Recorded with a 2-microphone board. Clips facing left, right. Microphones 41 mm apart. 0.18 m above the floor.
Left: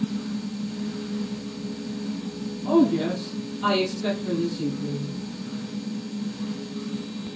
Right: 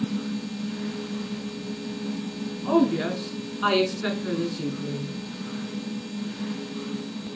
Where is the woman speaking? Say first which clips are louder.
Left 2 dB; 45° right (ahead or behind), 1.9 m.